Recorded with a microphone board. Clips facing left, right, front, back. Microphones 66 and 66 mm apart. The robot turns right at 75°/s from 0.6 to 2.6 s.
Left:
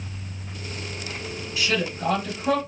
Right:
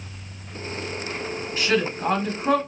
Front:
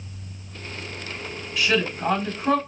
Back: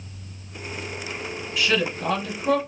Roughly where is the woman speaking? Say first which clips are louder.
Right 3 dB, front 1 dB; right.